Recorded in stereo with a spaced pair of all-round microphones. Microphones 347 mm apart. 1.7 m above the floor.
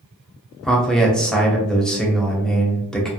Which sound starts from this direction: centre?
A man speaking, at 0.6 s.